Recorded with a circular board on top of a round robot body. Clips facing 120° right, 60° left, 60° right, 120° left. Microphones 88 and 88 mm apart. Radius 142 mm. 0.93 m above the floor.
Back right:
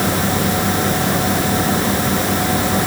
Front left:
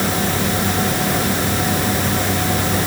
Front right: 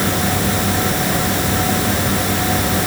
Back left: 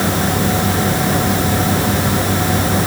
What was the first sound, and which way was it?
Only background noise.